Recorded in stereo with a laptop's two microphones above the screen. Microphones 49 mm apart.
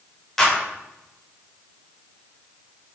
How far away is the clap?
About 4 m.